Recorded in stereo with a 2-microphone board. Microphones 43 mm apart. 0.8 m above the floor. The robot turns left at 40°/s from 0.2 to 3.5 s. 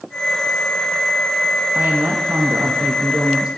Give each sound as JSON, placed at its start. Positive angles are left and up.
{"t": 1.8, "sound": "a woman speaking", "azimuth_deg": -90, "distance_m": 0.5}